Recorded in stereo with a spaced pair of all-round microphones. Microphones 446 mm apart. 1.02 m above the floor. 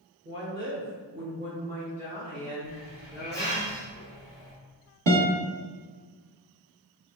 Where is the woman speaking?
25° right (ahead or behind), 0.9 m; by 3.6 s 10° right (ahead or behind), 2 m.